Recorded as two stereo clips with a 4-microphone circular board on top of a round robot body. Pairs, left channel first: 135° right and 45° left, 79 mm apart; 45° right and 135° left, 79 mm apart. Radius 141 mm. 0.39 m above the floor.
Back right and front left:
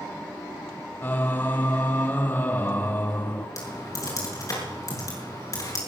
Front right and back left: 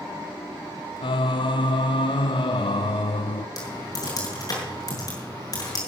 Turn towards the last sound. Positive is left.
turn(degrees=-90)